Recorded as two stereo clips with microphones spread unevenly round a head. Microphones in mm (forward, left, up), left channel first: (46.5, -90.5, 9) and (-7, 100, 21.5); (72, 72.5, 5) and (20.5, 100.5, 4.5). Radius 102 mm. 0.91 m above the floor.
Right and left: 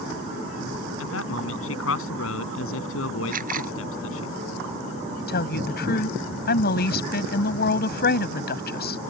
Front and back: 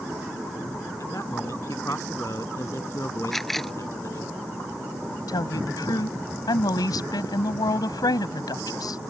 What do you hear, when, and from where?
1.0 s a man speaking: 105° right
3.3 s a camera shutter: 60° left
5.3 s a woman speaking: 35° right